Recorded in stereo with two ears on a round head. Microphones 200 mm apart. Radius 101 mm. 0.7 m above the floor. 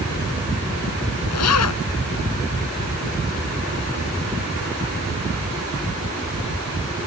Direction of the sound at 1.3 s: 85° left.